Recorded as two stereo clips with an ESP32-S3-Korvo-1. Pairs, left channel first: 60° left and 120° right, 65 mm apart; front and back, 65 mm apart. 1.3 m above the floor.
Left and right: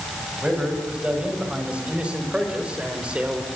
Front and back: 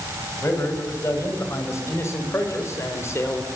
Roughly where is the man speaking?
Ahead right.